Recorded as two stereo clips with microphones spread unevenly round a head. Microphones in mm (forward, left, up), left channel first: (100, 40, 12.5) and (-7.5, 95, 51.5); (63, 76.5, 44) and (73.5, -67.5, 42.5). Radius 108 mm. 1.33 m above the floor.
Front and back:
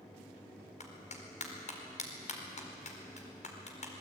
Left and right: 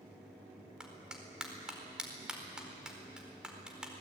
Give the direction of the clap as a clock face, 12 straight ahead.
12 o'clock.